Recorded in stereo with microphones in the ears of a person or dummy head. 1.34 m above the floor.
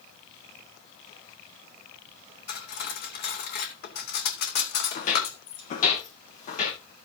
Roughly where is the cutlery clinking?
Left.